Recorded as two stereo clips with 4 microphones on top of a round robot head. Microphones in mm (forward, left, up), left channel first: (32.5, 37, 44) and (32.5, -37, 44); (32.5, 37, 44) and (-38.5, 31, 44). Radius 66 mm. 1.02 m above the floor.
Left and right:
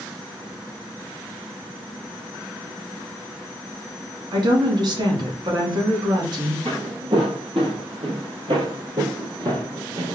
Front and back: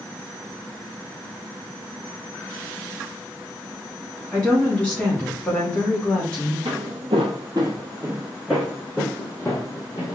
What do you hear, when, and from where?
4.3 s a woman speaking: 70° right, 2 m
6.7 s footsteps: 140° right, 1.6 m; by 10.2 s 50° right, 1.9 m